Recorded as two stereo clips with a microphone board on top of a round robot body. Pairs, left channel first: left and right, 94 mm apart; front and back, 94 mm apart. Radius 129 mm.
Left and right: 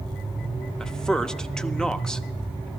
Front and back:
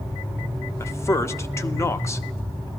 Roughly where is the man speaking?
Ahead.